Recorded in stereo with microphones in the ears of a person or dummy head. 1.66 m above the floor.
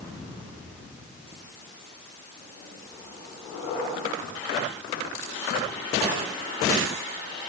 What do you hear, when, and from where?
Only background noise.